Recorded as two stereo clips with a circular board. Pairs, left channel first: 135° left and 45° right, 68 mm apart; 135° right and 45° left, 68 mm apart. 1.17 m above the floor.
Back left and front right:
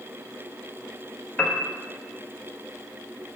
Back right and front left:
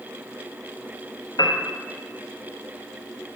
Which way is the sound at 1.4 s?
150° right.